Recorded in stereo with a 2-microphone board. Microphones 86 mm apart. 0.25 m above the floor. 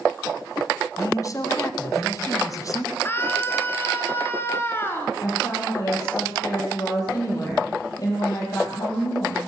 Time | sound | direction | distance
1.0 | a man speaking | 40° left (ahead or behind) | 2.0 m
3.0 | a scream | 25° left (ahead or behind) | 3.5 m
5.2 | a woman speaking | 45° left (ahead or behind) | 8.5 m